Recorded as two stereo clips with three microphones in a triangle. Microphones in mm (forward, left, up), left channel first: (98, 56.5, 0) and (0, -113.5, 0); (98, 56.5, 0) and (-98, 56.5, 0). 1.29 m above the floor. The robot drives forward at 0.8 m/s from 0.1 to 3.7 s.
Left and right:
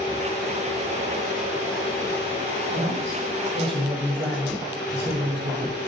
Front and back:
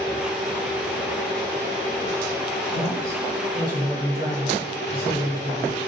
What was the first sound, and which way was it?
A man speaking, 125° right.